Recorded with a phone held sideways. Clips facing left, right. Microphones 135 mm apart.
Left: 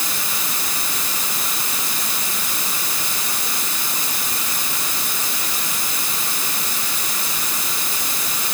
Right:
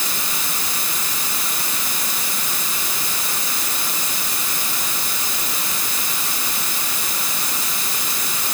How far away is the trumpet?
No trumpet in this recording.